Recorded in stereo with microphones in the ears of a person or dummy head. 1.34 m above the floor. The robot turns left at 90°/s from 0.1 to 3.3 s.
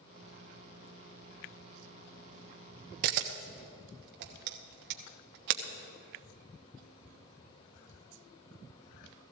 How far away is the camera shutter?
About 1.0 m.